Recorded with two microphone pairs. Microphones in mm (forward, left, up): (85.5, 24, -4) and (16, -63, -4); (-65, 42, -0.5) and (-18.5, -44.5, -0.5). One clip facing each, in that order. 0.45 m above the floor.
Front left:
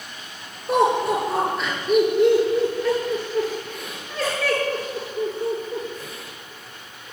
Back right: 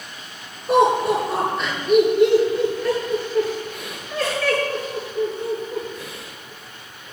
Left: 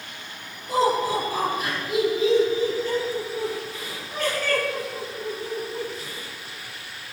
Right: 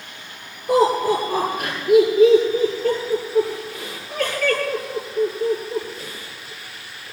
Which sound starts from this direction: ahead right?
Laughter, at 0.7 s.